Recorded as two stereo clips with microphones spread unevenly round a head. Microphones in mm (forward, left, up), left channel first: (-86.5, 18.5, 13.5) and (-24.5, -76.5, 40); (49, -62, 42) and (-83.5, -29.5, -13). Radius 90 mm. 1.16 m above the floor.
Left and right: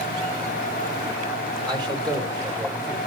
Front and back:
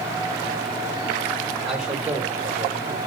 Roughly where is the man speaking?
Right.